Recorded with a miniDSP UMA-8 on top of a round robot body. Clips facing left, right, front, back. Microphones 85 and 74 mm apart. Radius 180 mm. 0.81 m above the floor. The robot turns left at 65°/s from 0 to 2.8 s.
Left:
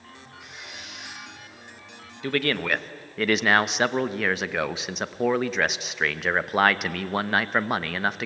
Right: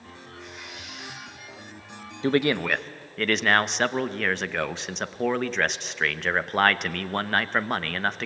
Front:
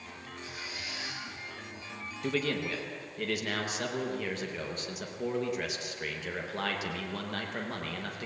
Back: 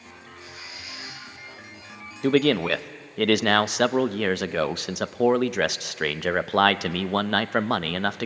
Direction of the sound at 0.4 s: 175° left.